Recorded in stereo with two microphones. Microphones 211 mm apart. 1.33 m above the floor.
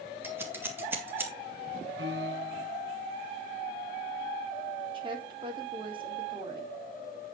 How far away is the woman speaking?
About 4.5 m.